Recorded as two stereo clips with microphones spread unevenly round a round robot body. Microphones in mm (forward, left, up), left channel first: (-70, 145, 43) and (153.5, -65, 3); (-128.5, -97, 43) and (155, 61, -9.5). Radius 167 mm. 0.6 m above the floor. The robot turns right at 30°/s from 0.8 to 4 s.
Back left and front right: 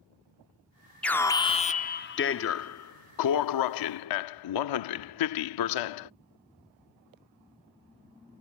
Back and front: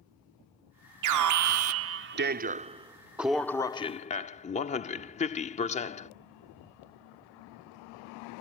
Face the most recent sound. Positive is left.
turn(degrees=135)